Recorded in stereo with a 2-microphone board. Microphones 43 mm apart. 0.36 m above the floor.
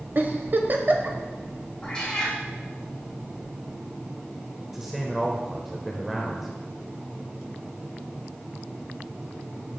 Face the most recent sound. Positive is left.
turn(degrees=-5)  # may be behind; listen again after turning